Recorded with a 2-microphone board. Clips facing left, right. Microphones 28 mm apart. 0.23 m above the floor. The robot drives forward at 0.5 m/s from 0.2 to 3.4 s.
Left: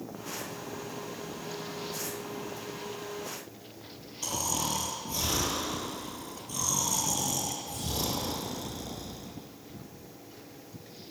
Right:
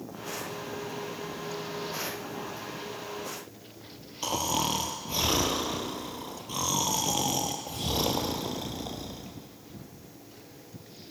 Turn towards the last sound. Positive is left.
turn(degrees=-35)  # may be behind; listen again after turning